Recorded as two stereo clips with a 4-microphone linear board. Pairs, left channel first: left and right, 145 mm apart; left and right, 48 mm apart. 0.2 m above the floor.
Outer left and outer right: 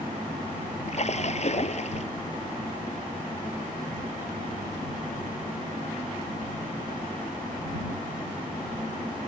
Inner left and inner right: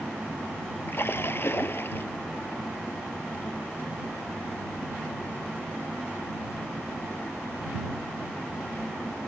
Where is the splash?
50° left (ahead or behind).